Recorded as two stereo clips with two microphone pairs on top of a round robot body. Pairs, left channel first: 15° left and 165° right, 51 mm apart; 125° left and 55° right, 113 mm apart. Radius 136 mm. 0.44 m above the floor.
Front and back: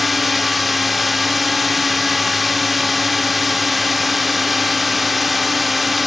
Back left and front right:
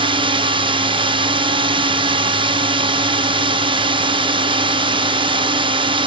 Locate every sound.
0.0 s a drone: 75° right